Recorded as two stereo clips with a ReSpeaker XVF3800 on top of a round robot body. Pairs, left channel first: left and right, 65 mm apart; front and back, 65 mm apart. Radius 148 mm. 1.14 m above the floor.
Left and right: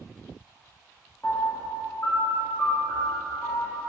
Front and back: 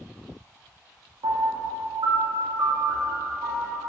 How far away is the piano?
About 2.0 m.